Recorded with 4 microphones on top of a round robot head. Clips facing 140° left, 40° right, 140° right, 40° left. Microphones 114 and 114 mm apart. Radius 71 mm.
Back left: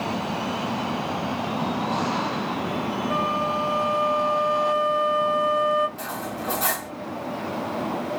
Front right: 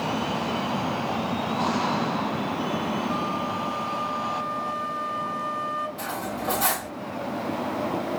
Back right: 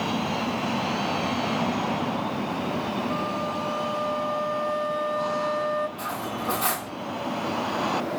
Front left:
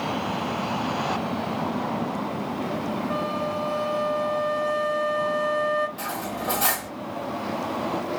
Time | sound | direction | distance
3.1 | a flute | 85° left | 1.0 m
6.0 | cutlery clinking | 50° left | 1.7 m